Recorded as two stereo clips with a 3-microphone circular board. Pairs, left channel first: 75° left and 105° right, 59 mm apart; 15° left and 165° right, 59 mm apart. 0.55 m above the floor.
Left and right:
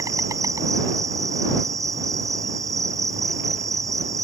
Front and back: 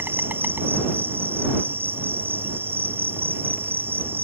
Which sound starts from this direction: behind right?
An insect, at 0.0 s.